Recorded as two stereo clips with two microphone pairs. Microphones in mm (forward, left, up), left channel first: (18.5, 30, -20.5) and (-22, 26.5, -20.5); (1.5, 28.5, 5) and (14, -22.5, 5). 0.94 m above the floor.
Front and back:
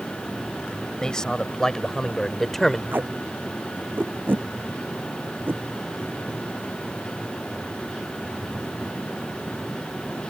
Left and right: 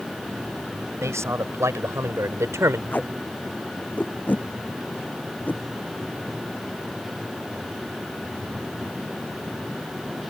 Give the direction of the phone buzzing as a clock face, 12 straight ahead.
I don't hear a phone buzzing.